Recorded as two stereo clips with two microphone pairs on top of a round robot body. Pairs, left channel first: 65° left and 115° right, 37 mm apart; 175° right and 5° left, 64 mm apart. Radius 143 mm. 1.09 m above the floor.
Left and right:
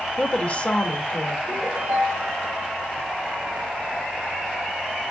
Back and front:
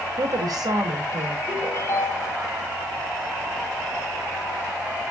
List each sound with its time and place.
0.2 s a woman speaking: 20° left, 2.5 m
1.5 s a ringtone: 125° right, 3.5 m